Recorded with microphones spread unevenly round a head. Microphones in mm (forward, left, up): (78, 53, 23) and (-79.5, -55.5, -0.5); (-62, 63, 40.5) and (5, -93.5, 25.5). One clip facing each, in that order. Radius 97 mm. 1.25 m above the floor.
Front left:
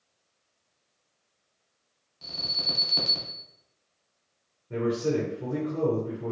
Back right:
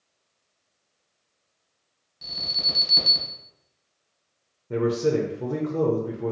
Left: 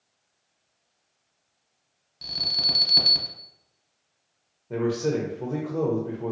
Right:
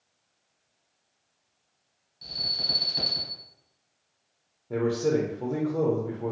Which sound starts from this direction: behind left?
An alarm, at 2.2 s.